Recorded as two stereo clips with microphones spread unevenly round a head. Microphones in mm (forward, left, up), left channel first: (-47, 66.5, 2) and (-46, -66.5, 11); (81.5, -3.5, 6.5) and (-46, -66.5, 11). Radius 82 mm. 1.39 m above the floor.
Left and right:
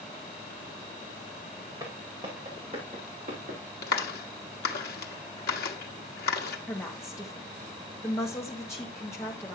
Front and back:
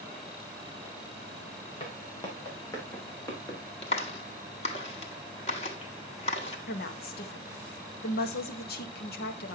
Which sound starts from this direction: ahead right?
Footsteps, at 1.8 s.